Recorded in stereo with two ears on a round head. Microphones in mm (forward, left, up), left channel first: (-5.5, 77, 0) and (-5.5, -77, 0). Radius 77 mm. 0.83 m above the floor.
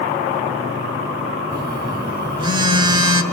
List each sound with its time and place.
1.5 s a phone buzzing: 30° right (ahead or behind), 1.1 m